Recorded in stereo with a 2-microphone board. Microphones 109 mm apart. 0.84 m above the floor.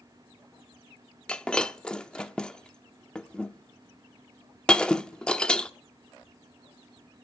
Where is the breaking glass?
10° left (ahead or behind), 0.7 m.